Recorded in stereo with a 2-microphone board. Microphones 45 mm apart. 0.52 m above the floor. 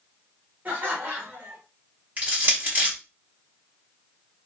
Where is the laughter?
35° right (ahead or behind), 1.7 m.